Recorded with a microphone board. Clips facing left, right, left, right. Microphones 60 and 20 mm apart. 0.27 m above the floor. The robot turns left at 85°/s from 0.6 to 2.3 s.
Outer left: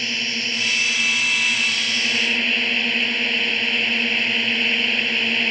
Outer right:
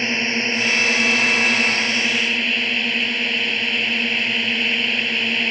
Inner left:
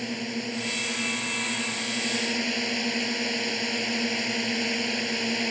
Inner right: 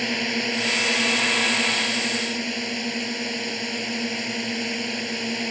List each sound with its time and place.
0.0 s a drone: 35° right; by 5.5 s straight behind